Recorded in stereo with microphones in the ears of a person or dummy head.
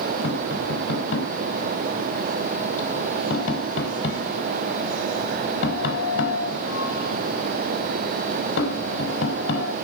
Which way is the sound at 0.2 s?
75° left (ahead or behind).